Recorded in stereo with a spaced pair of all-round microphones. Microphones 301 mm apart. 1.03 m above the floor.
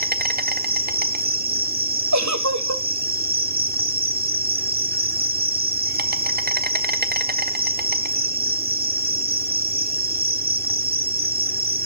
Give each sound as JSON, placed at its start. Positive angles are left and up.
{"t": 0.0, "sound": "an insect", "side_deg": -30, "distance_m": 1.0}
{"t": 2.1, "sound": "a giggle", "side_deg": -65, "distance_m": 1.6}